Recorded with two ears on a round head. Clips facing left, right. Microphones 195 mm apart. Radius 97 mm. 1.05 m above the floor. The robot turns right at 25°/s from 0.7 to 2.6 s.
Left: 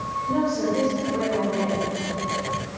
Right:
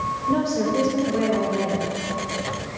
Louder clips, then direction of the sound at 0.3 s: Right 1 dB; 80° right.